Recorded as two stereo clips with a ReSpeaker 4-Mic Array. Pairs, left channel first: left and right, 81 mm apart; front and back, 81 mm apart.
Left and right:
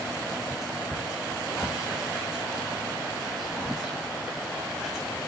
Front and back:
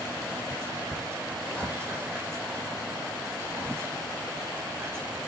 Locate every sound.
0.5 s whispering: 170° right, 1.6 m